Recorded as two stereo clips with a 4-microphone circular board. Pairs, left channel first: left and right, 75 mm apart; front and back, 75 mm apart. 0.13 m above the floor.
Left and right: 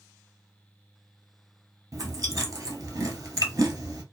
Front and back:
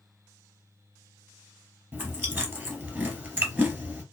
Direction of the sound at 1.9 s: 120° right.